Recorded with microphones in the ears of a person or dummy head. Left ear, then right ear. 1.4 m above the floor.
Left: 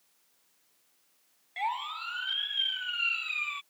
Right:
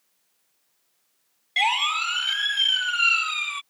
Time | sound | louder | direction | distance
1.6 | a siren | right 12 dB | 70° right (ahead or behind) | ?